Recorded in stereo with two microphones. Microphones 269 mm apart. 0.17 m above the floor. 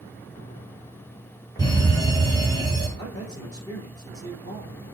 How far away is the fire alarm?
About 4 m.